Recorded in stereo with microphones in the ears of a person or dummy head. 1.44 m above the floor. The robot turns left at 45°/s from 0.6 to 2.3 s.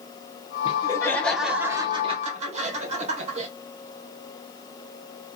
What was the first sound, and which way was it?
Laughter, 40° left.